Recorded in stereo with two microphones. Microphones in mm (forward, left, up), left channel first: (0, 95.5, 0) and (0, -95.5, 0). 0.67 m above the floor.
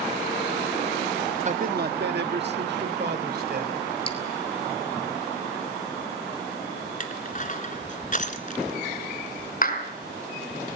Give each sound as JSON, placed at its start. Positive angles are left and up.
{"t": 1.4, "sound": "a man speaking", "side_deg": -40, "distance_m": 0.7}
{"t": 4.1, "sound": "dripping", "side_deg": 30, "distance_m": 3.0}
{"t": 7.0, "sound": "crushing", "side_deg": 45, "distance_m": 1.8}
{"t": 9.6, "sound": "a clap", "side_deg": 45, "distance_m": 4.5}